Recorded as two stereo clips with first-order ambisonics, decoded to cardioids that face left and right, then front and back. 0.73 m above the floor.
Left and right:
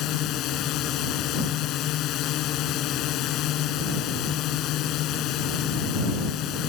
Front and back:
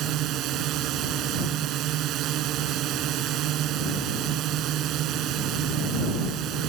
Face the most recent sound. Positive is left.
turn(degrees=135)